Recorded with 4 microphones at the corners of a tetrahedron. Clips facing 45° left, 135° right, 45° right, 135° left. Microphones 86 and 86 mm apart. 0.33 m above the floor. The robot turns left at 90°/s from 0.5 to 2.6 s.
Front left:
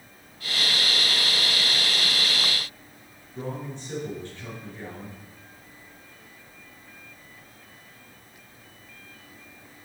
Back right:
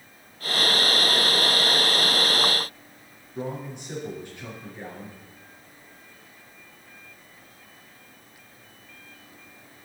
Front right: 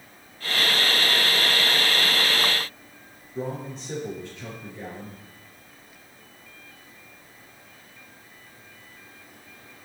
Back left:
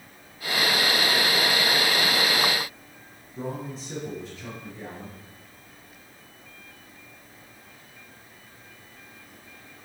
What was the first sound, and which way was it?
A man speaking, 65° right.